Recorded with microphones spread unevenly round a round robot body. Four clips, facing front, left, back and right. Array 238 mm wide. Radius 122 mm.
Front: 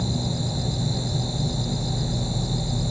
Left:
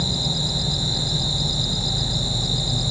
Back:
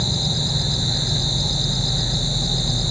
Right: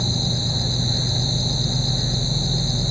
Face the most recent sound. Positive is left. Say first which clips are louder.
# right 1 dB, back 1 dB
turn(degrees=170)